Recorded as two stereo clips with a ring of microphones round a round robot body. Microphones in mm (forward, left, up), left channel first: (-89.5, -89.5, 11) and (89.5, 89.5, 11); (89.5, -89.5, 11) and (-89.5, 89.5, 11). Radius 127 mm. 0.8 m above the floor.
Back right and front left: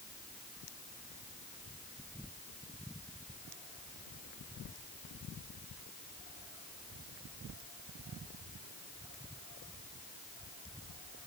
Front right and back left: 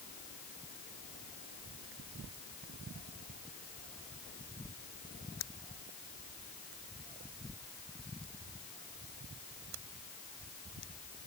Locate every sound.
Only background noise.